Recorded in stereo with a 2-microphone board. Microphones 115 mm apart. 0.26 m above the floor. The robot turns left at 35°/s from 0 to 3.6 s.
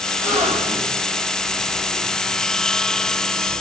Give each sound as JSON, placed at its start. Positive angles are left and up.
{"t": 0.2, "sound": "a gasp", "side_deg": -80, "distance_m": 2.0}